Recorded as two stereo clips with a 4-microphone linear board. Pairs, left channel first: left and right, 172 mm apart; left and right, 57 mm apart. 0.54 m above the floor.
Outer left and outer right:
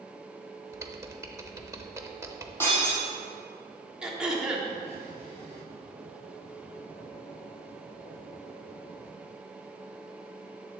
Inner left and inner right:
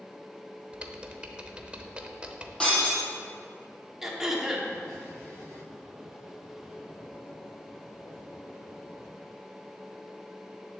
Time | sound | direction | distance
0.7 | typing on a keyboard | 20° right (ahead or behind) | 0.8 m
2.6 | breaking glass | 15° left (ahead or behind) | 3.5 m
4.0 | throat clearing | 5° right (ahead or behind) | 1.2 m